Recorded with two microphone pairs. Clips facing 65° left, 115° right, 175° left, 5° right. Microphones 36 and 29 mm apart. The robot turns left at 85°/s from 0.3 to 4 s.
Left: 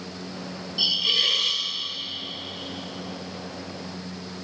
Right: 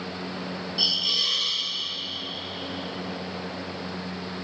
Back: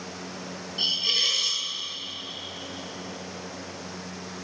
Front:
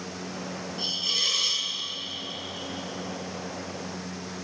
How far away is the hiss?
About 1.1 m.